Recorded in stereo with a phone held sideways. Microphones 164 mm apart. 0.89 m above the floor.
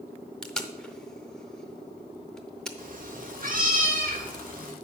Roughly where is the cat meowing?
Right.